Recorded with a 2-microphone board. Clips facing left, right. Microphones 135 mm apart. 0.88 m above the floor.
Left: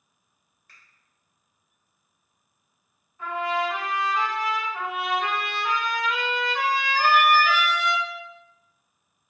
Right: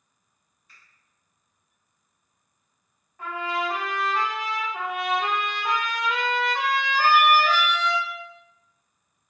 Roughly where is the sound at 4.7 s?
Centre.